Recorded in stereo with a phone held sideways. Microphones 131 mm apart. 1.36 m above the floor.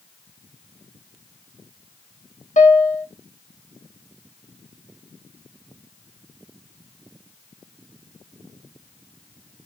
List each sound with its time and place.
2.6 s a piano: 75° left (ahead or behind), 1.3 m